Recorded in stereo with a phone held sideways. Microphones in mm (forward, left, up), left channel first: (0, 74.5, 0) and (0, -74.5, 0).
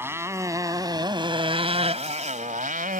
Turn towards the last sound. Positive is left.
turn(degrees=-65)  # may be behind; listen again after turning